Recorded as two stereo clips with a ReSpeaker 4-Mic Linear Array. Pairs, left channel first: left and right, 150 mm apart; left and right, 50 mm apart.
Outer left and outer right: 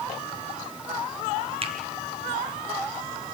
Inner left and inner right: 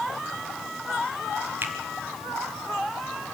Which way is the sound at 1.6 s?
40° right (ahead or behind).